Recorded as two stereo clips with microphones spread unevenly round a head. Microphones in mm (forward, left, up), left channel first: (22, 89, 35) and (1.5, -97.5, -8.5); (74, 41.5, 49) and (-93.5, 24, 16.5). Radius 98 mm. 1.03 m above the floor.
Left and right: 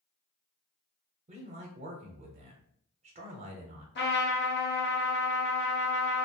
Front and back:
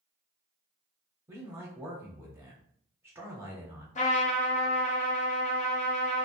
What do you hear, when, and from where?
1.3 s a man speaking: 115° right, 0.6 m
4.0 s a trumpet: 55° left, 0.7 m